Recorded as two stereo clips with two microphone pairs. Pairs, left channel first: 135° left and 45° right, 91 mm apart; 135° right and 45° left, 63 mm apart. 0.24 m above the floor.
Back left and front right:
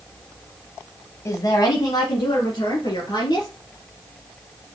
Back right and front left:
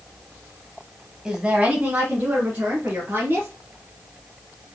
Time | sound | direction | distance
1.2 | a woman speaking | 115° left | 1.1 m